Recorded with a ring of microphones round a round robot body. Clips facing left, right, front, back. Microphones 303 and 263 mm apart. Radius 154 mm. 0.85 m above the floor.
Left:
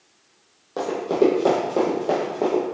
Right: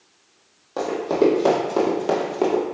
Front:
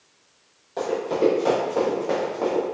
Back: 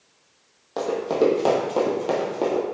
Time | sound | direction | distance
0.8 | running footsteps | straight behind | 1.6 m